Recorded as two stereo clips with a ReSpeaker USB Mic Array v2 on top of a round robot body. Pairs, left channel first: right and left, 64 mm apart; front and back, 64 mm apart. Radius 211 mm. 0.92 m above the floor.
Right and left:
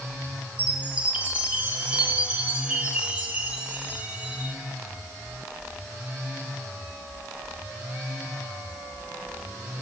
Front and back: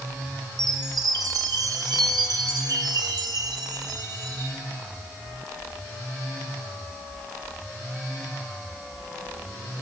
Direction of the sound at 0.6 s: 160° left.